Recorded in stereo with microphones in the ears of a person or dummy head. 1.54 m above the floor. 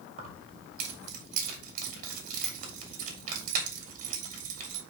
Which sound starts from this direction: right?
Keys jangling, at 0.2 s.